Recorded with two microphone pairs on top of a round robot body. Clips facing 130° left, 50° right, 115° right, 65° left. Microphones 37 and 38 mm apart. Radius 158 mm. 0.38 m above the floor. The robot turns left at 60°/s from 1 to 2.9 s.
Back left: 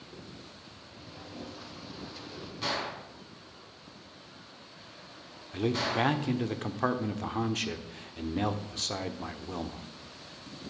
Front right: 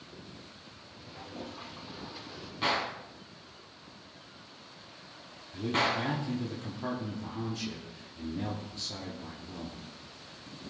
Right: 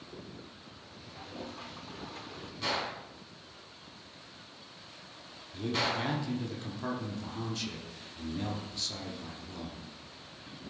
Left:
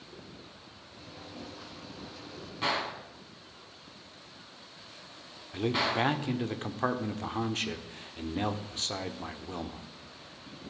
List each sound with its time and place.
1.1 s a toilet flushing: 60° right, 2 m; by 2.5 s 140° right, 2 m
2.6 s a gunshot: 10° left, 3 m; by 6.1 s 5° right, 3 m
5.5 s a man speaking: 105° left, 1.6 m